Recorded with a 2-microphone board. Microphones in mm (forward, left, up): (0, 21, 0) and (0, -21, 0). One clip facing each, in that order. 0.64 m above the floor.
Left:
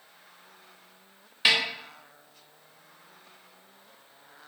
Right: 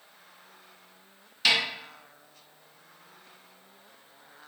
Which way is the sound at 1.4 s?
20° left (ahead or behind).